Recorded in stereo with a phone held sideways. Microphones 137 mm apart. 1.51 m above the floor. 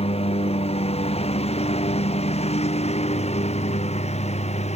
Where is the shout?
No shout in this recording.